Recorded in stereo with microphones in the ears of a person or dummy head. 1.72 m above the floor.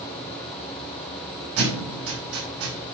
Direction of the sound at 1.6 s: 80° right.